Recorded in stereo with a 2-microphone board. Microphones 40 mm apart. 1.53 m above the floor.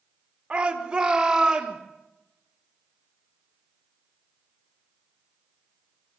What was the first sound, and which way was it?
A shout, 25° right (ahead or behind).